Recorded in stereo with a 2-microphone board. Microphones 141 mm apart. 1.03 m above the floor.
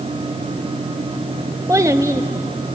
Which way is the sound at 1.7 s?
25° right (ahead or behind).